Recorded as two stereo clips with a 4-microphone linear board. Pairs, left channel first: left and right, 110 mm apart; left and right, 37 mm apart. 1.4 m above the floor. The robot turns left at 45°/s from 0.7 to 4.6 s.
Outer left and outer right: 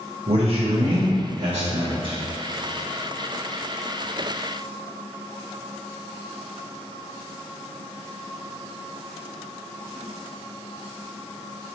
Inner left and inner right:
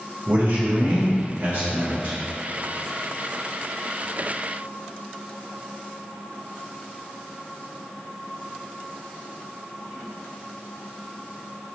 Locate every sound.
0.3 s a man speaking: 65° right, 0.8 m; by 2.2 s 135° right, 0.8 m